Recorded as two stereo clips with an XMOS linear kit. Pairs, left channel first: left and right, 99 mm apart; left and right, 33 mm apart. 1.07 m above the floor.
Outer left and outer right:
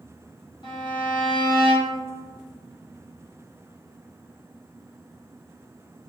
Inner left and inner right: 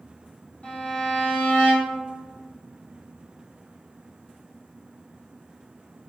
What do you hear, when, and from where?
0.6 s a violin: 55° left (ahead or behind), 1.1 m